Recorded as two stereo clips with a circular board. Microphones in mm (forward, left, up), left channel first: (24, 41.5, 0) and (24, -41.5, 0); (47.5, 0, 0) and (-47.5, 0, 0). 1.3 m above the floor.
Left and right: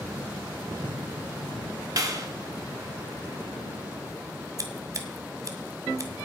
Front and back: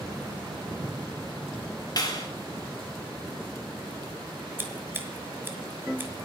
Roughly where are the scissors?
Behind right.